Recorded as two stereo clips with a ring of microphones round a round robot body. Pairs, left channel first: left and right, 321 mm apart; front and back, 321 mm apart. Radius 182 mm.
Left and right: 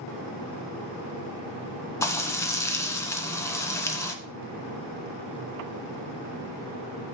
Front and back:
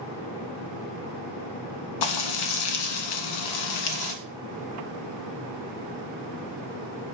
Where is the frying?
10° left, 1.4 m.